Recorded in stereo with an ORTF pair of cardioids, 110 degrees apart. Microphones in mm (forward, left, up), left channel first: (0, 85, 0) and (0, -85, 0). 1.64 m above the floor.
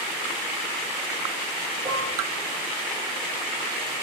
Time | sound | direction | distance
1.9 | dishes clattering | 30° right | 1.9 m